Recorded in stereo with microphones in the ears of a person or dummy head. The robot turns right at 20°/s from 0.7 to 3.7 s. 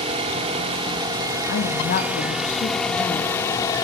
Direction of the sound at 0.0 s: 40° right.